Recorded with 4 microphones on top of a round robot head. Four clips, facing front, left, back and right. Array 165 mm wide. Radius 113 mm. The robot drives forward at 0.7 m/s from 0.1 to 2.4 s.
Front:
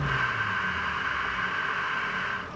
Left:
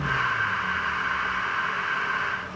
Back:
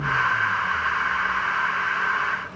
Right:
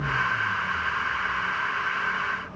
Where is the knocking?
No knocking in this recording.